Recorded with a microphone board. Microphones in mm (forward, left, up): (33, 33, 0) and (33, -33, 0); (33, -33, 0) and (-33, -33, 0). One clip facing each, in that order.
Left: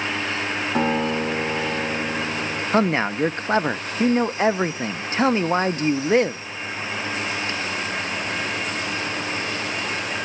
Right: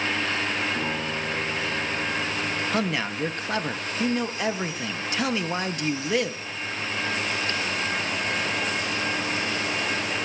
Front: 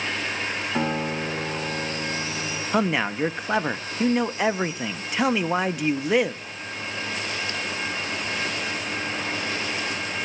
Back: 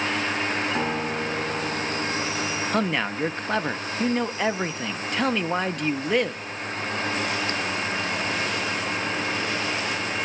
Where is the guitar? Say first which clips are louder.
Left 7 dB, even; 85° left, 6 m.